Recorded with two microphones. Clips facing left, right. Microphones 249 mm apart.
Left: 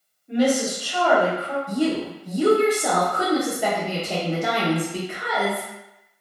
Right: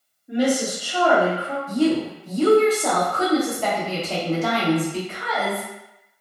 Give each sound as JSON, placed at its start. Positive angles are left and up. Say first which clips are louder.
{"t": 0.3, "sound": "a woman speaking", "louder": "left 1 dB", "side_deg": -10, "distance_m": 1.2}
{"t": 1.7, "sound": "a woman speaking", "louder": "right 4 dB", "side_deg": 15, "distance_m": 1.0}